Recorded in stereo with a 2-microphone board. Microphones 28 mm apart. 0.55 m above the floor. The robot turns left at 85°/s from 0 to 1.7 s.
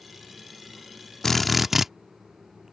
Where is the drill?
25° left; by 1.9 s 15° right.